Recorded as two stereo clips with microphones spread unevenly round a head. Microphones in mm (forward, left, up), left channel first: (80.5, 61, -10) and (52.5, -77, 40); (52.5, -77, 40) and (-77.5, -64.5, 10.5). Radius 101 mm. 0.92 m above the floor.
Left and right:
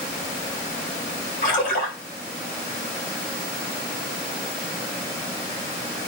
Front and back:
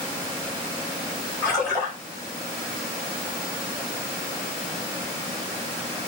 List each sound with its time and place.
1.4 s a splash: 70° left, 7 m